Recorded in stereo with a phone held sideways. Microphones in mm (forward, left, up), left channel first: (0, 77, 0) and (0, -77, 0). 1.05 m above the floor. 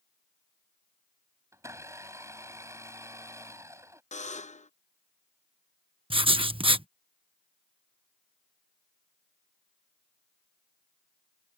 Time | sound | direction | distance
1.5 | a blender | 20° right (ahead or behind) | ?
4.1 | a buzzer | 50° left (ahead or behind) | ?
6.1 | writing | 35° right (ahead or behind) | ?